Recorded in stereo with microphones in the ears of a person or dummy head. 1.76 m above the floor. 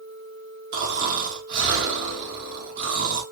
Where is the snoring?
50° right (ahead or behind), 1.1 m.